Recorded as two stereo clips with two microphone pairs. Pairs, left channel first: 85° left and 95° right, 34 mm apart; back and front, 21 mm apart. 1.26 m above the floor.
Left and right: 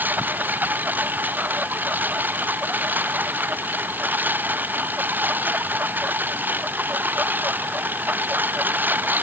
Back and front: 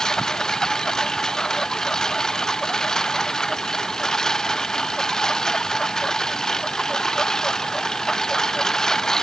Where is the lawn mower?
120° right.